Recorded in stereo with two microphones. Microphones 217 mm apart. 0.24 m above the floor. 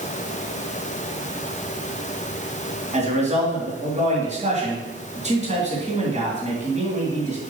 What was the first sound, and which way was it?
A man speaking, 30° right (ahead or behind).